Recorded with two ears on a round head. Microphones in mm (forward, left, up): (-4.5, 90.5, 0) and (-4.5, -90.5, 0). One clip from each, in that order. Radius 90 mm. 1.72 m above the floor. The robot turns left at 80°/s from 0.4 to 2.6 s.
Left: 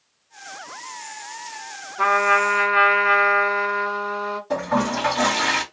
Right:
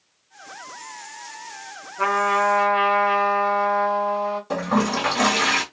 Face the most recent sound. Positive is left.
turn(degrees=-20)  # may be behind; listen again after turning